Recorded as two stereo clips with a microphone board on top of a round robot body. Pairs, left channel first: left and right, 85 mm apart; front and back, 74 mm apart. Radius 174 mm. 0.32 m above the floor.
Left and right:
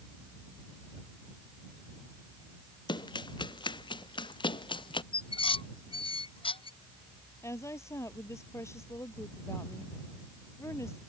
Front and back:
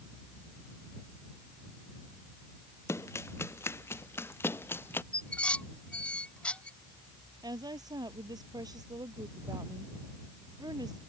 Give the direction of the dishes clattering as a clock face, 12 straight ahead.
9 o'clock.